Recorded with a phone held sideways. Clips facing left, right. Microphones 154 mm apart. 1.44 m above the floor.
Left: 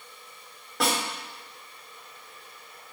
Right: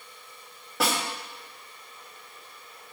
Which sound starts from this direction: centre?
A snare drum, at 0.8 s.